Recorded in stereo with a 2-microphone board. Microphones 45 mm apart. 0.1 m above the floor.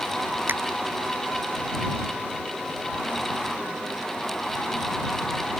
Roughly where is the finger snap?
Right.